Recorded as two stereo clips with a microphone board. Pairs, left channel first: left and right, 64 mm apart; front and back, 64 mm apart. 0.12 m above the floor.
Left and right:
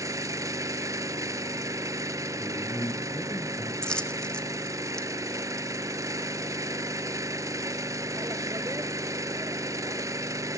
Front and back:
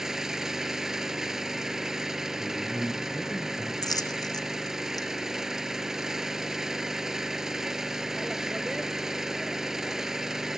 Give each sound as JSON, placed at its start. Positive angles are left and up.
{"t": 0.0, "sound": "an engine running", "azimuth_deg": -100, "distance_m": 0.8}
{"t": 2.4, "sound": "a man speaking", "azimuth_deg": 85, "distance_m": 4.0}
{"t": 3.8, "sound": "a dropped coin", "azimuth_deg": 15, "distance_m": 1.6}